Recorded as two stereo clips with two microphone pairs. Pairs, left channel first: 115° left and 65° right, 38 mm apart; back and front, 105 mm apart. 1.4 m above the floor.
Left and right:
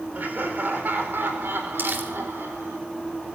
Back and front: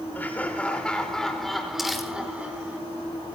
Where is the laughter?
110° right, 4.5 m; by 2.8 s 75° right, 4.5 m.